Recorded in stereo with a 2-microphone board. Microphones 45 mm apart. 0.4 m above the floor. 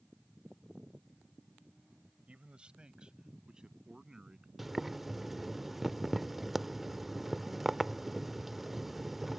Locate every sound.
2.3 s a man speaking: 25° right (ahead or behind); by 4.5 s 15° right (ahead or behind)
4.6 s boiling: 5° right (ahead or behind)